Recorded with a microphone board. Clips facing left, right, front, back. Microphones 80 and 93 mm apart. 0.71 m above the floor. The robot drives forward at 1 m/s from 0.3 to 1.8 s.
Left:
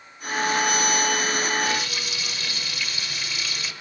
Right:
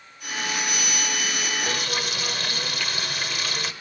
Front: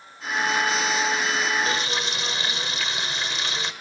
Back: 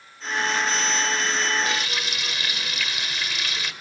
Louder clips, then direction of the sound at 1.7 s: Even, front 2 dB; 55° right.